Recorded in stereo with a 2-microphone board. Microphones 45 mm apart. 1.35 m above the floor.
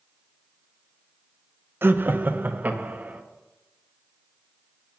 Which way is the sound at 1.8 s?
55° right (ahead or behind).